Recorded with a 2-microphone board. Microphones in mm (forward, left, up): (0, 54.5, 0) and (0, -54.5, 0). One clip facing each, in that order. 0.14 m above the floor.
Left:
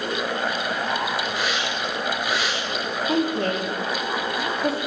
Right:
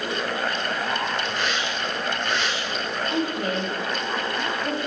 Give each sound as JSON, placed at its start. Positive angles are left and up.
{"t": 1.3, "sound": "a hiss", "side_deg": 5, "distance_m": 8.5}
{"t": 3.1, "sound": "a woman speaking", "side_deg": 80, "distance_m": 8.5}